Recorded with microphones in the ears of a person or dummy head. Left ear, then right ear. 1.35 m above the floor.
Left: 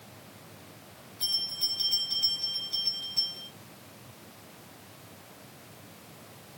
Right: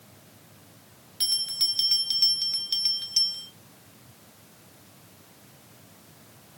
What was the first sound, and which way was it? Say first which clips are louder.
A bell: right 4 dB; 45° right (ahead or behind).